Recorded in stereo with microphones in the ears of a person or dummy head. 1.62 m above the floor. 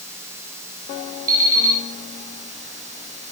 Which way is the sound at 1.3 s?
20° right (ahead or behind).